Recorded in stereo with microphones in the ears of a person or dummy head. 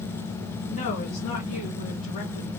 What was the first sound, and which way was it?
A woman speaking, 35° left (ahead or behind).